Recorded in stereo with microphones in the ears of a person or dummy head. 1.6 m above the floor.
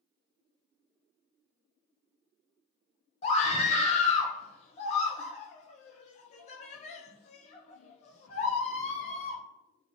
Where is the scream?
40° left (ahead or behind), 0.9 m.